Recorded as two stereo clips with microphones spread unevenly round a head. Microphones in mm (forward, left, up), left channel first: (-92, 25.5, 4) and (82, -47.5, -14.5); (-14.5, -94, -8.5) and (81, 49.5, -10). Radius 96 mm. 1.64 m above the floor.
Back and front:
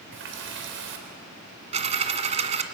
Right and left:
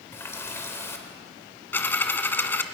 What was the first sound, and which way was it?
A running tap, 50° right.